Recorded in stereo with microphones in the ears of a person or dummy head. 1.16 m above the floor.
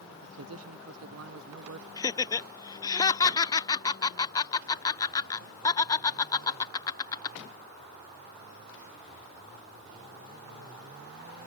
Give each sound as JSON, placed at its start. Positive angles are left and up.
{"t": 0.2, "sound": "a man speaking", "side_deg": -70}
{"t": 2.0, "sound": "laughter", "side_deg": 20}